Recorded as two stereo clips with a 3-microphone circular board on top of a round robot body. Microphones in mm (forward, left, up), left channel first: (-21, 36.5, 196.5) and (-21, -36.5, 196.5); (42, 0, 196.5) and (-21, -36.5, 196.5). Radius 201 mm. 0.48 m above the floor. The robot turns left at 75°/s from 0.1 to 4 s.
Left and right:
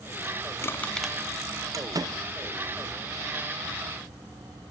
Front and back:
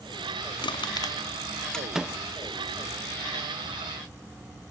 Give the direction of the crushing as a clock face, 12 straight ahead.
11 o'clock.